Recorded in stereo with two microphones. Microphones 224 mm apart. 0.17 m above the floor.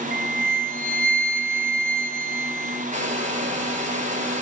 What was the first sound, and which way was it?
A flute, 40° right (ahead or behind).